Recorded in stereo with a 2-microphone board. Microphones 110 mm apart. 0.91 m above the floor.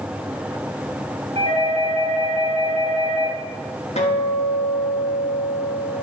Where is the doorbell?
60° right (ahead or behind), 1.9 m.